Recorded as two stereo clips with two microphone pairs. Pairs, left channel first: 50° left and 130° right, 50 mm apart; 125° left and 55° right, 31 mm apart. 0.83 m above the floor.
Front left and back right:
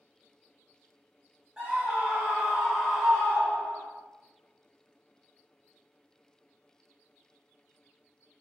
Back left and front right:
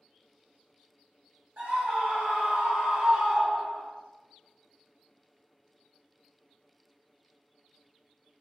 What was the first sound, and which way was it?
A scream, 55° right.